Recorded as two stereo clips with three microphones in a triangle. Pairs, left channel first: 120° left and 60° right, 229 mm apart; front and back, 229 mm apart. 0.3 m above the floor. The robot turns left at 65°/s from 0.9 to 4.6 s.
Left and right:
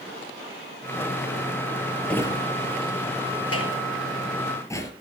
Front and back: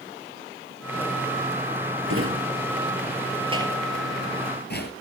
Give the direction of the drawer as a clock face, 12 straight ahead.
5 o'clock.